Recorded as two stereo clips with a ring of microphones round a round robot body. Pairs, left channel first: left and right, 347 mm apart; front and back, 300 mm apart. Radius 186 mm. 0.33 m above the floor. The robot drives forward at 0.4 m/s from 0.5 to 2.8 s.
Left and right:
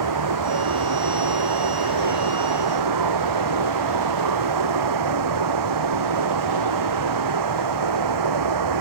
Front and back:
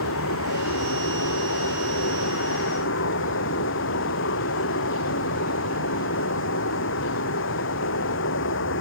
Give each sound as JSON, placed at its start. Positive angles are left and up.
{"t": 0.0, "sound": "running water", "azimuth_deg": -55}